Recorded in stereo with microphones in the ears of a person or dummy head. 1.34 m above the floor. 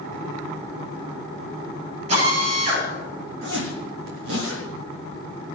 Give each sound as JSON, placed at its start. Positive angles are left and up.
{"t": 2.1, "sound": "a drill", "side_deg": -40, "distance_m": 7.0}
{"t": 3.4, "sound": "a zipper", "side_deg": -70, "distance_m": 3.5}